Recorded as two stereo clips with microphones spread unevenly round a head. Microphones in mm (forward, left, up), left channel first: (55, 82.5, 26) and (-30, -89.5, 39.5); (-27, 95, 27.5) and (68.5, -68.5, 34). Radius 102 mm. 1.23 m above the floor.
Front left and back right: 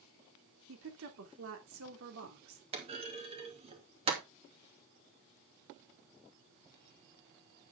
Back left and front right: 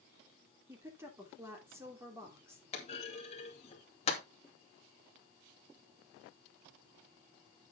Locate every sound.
0.7 s a woman speaking: 135° right, 3 m
2.7 s a clunk: straight behind, 2.5 m